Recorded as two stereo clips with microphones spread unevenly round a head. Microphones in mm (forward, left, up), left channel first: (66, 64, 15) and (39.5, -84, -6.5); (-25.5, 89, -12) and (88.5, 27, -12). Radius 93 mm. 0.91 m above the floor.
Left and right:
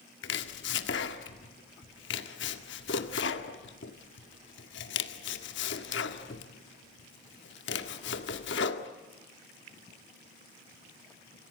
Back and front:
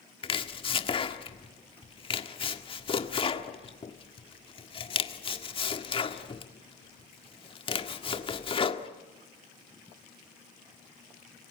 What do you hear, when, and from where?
0.2 s chopping: 105° left, 1.7 m